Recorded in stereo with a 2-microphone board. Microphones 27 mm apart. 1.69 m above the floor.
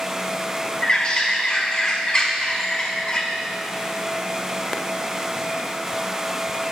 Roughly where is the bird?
Left.